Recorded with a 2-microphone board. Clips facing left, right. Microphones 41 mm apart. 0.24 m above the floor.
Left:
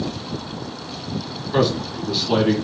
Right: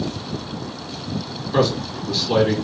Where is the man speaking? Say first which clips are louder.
Even; 10° left (ahead or behind), 1.9 m.